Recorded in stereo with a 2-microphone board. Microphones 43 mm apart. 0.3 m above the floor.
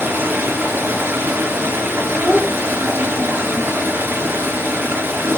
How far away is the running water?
About 4 m.